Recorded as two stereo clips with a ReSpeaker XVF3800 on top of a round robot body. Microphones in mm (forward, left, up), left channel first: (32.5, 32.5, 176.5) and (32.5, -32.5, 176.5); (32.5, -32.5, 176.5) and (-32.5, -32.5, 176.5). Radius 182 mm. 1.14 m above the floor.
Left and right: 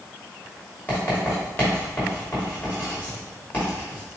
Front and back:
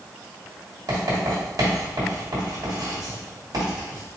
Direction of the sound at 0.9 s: 155° left.